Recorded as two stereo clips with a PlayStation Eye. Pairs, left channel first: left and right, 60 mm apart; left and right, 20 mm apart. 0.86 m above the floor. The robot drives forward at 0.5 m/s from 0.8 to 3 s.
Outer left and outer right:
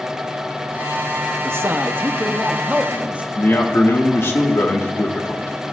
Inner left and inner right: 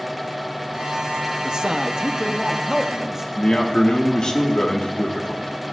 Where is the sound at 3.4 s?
40° left (ahead or behind), 1.6 m.